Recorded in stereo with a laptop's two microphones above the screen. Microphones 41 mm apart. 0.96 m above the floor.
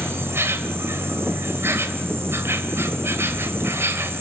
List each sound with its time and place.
0.0 s an insect: 75° right (ahead or behind), 1.7 m